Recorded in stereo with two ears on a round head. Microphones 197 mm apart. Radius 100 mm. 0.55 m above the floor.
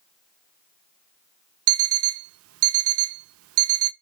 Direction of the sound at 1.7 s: 65° right (ahead or behind).